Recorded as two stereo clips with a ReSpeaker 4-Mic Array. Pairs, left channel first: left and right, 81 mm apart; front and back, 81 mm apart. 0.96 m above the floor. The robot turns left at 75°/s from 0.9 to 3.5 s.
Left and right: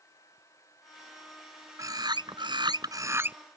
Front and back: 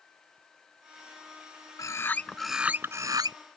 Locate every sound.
1.8 s a bird: 40° right; by 3.4 s 160° right